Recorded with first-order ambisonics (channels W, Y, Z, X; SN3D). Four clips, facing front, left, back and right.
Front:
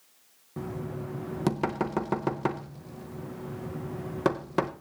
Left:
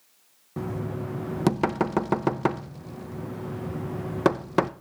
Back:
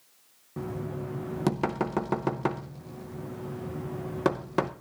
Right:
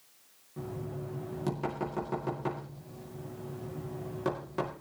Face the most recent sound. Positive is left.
turn(degrees=90)